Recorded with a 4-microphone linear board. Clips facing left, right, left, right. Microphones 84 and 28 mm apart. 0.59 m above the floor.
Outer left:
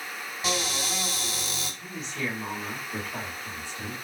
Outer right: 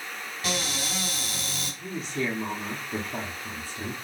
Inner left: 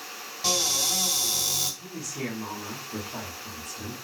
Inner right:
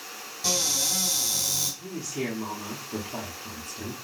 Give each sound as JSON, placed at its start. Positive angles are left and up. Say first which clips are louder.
{"t": 0.4, "sound": "a cupboard door", "louder": "outer left 1 dB, inner left 1 dB", "side_deg": 20, "distance_m": 2.5}
{"t": 1.8, "sound": "a woman speaking", "louder": "outer right 5 dB, inner right 2 dB", "side_deg": -35, "distance_m": 0.9}